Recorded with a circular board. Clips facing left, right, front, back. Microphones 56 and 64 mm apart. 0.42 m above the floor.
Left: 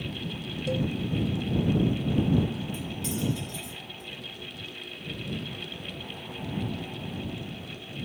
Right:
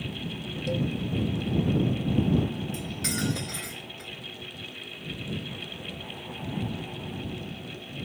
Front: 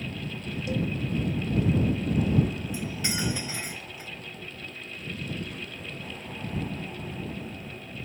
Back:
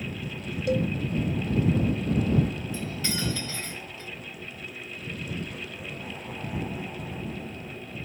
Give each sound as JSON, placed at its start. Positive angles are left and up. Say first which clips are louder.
{"t": 0.7, "sound": "a cowbell", "louder": "even, back 5 dB", "azimuth_deg": 180}
{"t": 2.7, "sound": "cutlery clinking", "louder": "right 1 dB, even", "azimuth_deg": -75}